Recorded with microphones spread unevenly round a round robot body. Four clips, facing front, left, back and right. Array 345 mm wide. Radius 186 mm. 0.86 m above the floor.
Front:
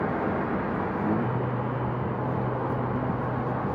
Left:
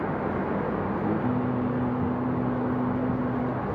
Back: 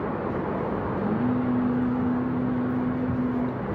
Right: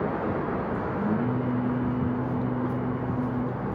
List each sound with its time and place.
1.0 s singing: straight ahead, 3 m